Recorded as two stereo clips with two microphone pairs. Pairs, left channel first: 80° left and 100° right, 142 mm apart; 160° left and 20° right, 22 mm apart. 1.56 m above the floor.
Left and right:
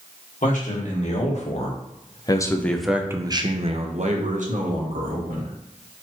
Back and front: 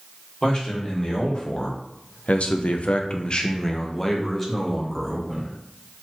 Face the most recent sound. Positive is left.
turn(degrees=-110)